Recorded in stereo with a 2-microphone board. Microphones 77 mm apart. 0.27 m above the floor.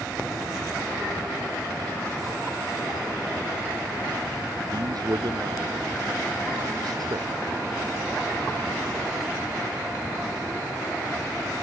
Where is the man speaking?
60° right (ahead or behind).